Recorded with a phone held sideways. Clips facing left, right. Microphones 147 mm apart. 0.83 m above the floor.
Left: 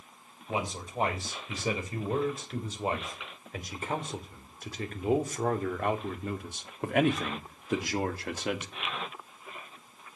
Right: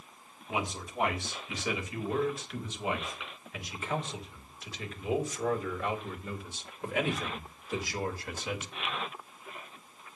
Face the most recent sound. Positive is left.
turn(degrees=65)  # may be behind; listen again after turning